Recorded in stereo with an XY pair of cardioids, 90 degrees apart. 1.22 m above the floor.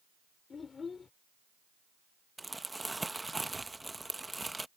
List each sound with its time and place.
0.5 s a child speaking: 45° left
2.4 s crumpling: 15° right